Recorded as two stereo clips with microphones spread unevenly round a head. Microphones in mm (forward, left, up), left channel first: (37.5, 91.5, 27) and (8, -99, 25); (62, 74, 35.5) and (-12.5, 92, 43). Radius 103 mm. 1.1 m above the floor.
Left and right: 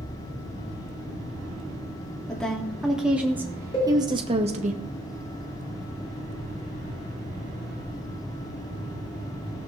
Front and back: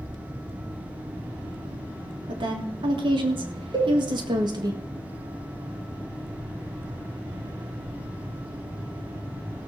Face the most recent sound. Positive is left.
turn(degrees=145)